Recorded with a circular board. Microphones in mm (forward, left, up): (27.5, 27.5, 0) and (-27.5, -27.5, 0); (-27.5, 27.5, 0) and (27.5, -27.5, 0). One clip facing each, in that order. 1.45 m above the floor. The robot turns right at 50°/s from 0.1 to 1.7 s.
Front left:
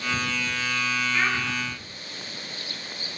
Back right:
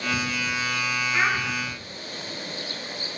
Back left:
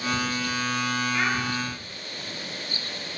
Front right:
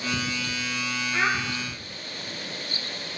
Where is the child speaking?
75° right, 3.5 m; by 1.4 s 60° right, 3.5 m.